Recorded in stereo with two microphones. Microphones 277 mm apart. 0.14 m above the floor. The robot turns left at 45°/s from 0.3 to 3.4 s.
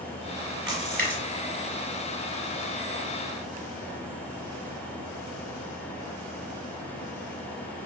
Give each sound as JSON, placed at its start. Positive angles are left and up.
{"t": 0.7, "sound": "a splash", "side_deg": -45, "distance_m": 1.3}